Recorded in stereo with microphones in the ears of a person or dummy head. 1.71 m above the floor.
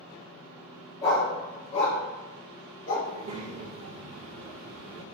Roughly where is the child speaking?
Right.